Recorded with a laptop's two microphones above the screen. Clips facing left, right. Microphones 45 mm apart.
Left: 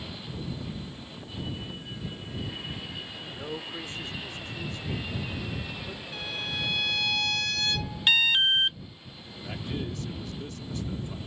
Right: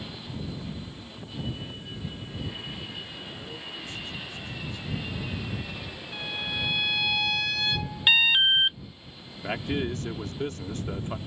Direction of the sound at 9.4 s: 50° right (ahead or behind).